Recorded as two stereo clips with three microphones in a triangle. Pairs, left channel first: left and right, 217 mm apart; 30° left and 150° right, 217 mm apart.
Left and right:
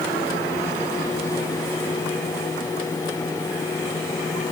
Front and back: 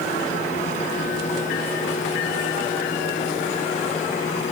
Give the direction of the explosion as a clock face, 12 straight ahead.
I don't hear an explosion.